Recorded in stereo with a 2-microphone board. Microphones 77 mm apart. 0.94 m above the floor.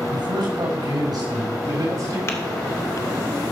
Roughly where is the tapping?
Left.